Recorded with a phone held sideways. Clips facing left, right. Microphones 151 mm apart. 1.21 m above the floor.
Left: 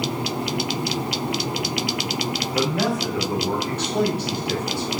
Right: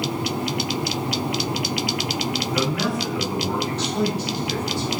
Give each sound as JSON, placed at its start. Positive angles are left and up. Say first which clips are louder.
{"t": 2.5, "sound": "a man speaking", "louder": "left 3 dB", "side_deg": 30, "distance_m": 2.0}